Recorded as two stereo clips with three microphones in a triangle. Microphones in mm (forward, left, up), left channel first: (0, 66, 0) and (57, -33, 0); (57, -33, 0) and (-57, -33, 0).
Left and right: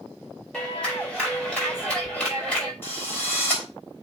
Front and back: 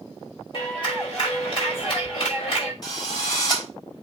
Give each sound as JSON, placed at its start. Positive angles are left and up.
{"t": 0.5, "sound": "a clap", "azimuth_deg": 40, "distance_m": 5.0}
{"t": 2.8, "sound": "a drill", "azimuth_deg": 50, "distance_m": 3.5}